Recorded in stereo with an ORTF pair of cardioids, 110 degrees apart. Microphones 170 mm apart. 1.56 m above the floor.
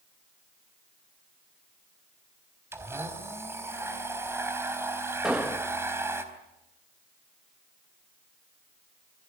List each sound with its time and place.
2.7 s a blender: 15° right, 4 m
5.2 s an explosion: 5° right, 1.9 m